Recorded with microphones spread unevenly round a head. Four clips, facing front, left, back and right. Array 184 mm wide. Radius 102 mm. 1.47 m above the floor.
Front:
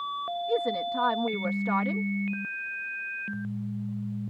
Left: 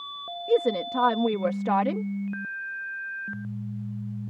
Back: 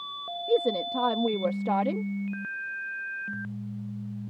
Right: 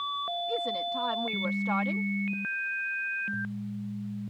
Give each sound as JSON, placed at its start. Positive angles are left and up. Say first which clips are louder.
{"t": 0.5, "sound": "a woman speaking", "louder": "left 12 dB, back 4 dB", "azimuth_deg": 140}